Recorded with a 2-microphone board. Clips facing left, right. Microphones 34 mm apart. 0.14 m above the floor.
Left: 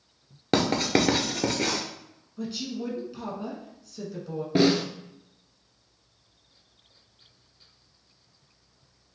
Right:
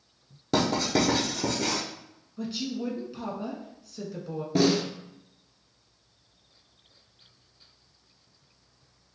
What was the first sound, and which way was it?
Writing, 60° left (ahead or behind).